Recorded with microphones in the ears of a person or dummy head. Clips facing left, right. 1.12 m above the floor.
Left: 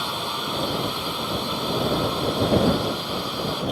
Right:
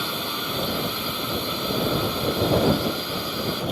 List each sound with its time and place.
0.0 s a drone: 40° right (ahead or behind)